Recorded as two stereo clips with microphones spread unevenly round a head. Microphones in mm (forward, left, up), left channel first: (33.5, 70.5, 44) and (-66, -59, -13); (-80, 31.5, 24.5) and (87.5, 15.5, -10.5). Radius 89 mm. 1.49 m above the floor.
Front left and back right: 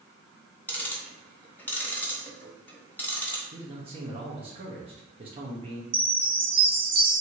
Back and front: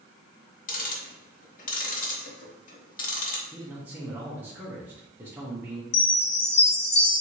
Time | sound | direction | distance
0.7 | ticking | 130° left | 1.2 m
3.5 | a man speaking | 80° right | 0.9 m
5.9 | a chime | 170° right | 1.3 m